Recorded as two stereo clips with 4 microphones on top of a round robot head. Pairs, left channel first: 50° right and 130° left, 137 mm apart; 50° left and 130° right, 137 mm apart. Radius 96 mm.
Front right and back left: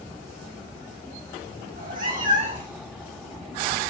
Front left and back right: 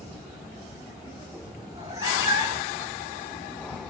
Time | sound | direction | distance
1.7 | a cat meowing | 160° left | 5 m